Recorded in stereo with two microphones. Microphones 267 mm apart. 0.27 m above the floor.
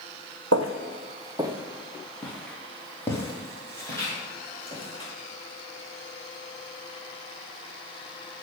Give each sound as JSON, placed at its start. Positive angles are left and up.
{"t": 0.5, "sound": "footsteps", "side_deg": -65, "distance_m": 0.6}